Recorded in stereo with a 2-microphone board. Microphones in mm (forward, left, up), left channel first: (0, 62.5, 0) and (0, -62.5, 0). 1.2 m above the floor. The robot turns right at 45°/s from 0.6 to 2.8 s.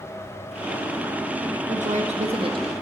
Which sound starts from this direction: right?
A woman speaking, at 1.7 s.